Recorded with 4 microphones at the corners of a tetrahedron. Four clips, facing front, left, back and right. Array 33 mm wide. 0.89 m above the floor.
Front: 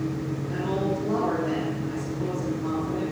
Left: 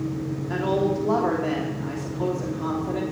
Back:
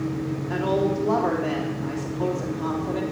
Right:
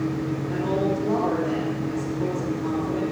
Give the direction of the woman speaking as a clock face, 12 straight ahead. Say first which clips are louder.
Left 2 dB, back 5 dB; 7 o'clock.